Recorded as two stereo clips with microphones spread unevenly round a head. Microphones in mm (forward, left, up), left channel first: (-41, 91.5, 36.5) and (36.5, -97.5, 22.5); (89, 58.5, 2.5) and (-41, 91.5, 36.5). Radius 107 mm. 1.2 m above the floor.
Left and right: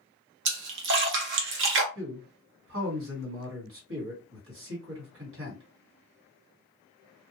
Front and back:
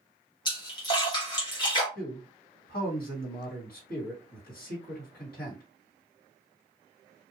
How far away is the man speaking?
About 1.7 m.